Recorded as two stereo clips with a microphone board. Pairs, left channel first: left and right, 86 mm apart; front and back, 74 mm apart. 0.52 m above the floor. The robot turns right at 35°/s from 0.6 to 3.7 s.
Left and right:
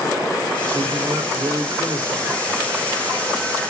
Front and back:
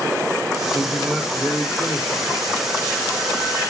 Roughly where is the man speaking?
Right.